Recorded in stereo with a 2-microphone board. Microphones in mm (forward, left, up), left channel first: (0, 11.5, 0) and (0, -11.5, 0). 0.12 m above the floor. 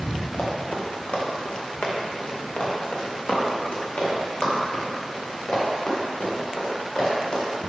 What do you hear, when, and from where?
0.3 s running footsteps: 75° left (ahead or behind), 2 m; by 7.5 s 55° left (ahead or behind), 5 m